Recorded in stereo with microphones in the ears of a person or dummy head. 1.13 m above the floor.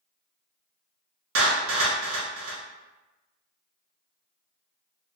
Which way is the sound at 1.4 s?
70° right (ahead or behind).